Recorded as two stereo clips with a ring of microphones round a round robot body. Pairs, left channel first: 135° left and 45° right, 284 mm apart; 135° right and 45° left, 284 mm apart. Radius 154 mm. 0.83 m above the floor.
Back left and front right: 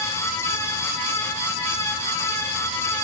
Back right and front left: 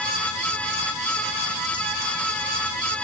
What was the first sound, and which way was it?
Only background noise.